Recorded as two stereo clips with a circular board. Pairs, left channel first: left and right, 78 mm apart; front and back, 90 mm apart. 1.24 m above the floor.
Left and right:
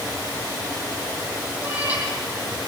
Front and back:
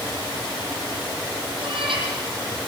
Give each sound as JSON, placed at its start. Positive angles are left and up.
{"t": 1.6, "sound": "a cat meowing", "azimuth_deg": -160, "distance_m": 9.5}